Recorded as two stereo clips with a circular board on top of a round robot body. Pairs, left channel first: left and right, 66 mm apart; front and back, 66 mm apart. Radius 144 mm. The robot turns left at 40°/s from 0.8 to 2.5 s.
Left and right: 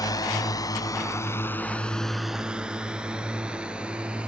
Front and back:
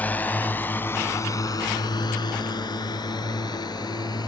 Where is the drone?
65° left; by 4.3 s 15° right.